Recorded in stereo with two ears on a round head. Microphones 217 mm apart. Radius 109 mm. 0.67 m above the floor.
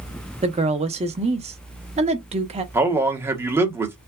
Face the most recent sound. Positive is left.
turn(degrees=-10)  # may be behind; listen again after turning